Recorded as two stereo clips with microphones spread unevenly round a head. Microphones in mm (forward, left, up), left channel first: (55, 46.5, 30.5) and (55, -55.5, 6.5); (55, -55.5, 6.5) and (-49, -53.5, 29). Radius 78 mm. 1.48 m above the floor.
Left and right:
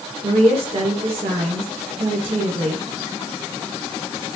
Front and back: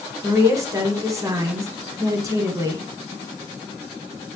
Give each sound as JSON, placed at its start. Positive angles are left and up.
{"t": 0.2, "sound": "a woman speaking", "azimuth_deg": -120, "distance_m": 1.4}